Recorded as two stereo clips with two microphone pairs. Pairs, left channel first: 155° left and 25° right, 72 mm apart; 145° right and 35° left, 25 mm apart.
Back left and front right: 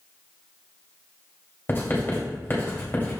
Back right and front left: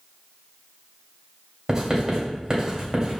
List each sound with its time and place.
1.7 s writing: 95° left, 3 m